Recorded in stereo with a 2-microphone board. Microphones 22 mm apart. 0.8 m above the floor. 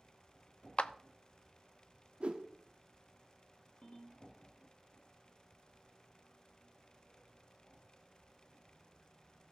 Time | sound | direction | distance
0.8 | a clap | 65° left (ahead or behind) | 0.7 m
2.2 | a whoosh | 65° right (ahead or behind) | 1.3 m
3.8 | a ringtone | 80° left | 4.5 m